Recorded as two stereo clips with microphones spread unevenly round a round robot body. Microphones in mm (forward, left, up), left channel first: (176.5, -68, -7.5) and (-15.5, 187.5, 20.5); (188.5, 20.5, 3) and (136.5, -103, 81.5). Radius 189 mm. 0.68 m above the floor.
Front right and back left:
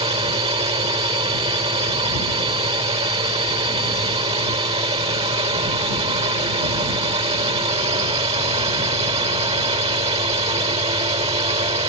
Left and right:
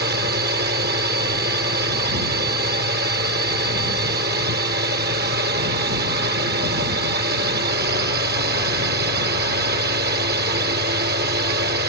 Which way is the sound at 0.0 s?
155° right.